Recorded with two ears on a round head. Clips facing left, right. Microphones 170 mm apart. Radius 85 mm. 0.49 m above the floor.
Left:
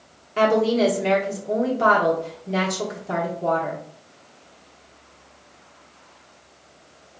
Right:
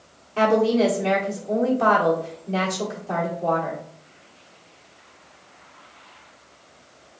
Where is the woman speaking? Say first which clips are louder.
Even; 15° left (ahead or behind), 1.1 m.